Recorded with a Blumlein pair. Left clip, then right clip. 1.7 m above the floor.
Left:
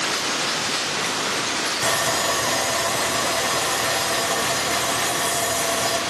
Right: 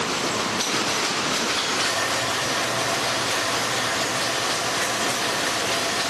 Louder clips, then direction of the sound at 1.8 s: Left 2 dB; 45° left.